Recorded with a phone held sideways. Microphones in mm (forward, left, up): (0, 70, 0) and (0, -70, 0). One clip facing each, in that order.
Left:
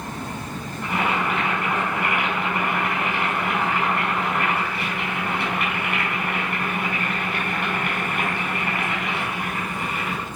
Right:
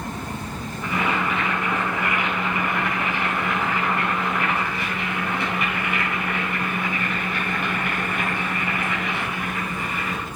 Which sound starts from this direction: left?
Boiling, at 0.8 s.